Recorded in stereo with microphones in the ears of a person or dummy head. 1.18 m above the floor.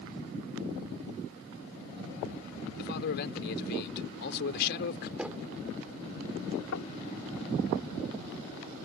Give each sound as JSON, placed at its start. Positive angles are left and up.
{"t": 2.8, "sound": "a man speaking", "side_deg": 60}
{"t": 5.2, "sound": "knocking", "side_deg": -5}
{"t": 6.7, "sound": "knocking", "side_deg": 85}